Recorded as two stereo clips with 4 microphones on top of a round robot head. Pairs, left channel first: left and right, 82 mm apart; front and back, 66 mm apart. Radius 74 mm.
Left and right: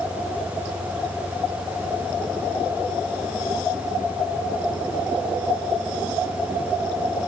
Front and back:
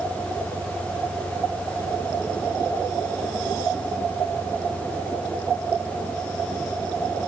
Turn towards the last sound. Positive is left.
turn(degrees=-160)